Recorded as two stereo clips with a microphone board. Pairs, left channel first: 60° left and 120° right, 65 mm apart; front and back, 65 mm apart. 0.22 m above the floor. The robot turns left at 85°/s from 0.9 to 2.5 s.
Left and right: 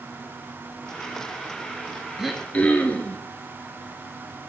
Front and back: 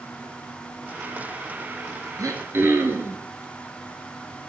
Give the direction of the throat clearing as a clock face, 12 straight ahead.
7 o'clock.